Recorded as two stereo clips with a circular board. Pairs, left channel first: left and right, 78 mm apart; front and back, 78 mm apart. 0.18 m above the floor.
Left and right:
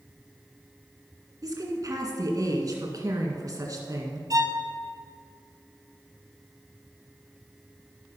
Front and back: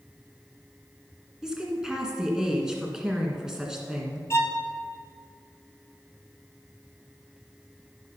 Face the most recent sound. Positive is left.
turn(degrees=-50)